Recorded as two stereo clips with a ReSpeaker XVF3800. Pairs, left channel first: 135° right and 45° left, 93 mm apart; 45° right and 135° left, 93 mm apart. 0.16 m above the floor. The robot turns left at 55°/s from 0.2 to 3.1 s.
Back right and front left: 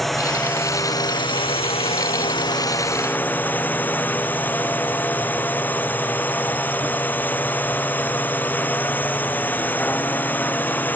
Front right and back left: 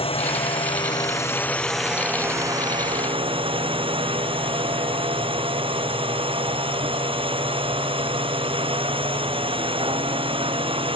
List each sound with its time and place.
0.0 s a drone: 45° right; by 11.0 s 155° left